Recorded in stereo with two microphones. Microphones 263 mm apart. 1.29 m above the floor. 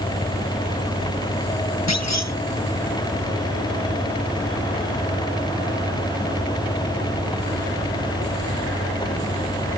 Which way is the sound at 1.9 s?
85° left.